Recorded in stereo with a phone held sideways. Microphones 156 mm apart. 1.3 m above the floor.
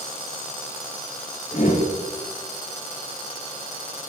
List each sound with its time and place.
1.5 s a whoosh: 65° left (ahead or behind), 2 m